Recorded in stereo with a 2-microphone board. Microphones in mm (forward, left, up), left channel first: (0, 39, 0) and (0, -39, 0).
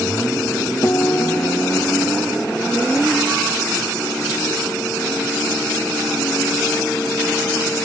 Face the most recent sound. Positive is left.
turn(degrees=35)  # may be behind; listen again after turning